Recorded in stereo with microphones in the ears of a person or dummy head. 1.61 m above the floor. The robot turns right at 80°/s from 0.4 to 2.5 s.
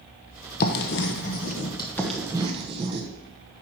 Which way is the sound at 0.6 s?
45° left (ahead or behind).